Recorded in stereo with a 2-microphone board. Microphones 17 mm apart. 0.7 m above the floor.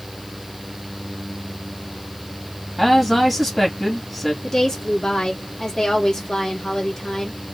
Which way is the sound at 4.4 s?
35° left (ahead or behind).